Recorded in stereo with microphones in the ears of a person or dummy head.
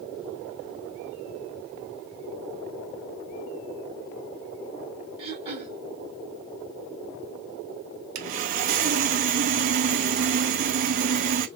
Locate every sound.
5.2 s throat clearing: 35° right (ahead or behind), 1.6 m
8.2 s sawing: 45° right (ahead or behind), 0.5 m